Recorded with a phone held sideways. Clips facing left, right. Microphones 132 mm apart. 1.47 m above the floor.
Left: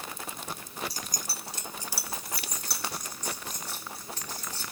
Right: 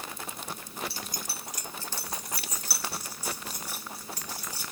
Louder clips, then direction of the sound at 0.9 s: Even; 40° left (ahead or behind).